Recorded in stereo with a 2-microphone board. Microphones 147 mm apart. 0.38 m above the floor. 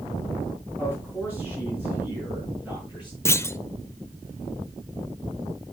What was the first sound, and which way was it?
A man speaking, 10° right (ahead or behind).